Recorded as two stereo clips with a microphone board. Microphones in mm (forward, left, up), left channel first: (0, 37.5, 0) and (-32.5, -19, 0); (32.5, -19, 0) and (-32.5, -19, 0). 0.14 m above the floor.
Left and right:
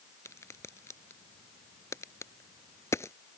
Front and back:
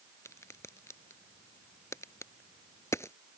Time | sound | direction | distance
0.2 | a crack | 30° left | ?